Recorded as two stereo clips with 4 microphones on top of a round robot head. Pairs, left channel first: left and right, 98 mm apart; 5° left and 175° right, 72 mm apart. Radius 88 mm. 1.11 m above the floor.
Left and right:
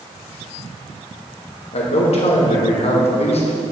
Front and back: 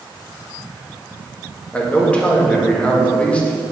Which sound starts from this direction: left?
A man speaking, at 1.7 s.